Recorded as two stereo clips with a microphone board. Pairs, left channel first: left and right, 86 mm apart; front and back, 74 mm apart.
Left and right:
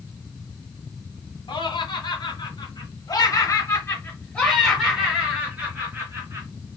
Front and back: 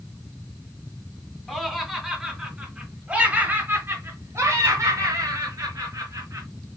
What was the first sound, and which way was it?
Laughter, 85° left.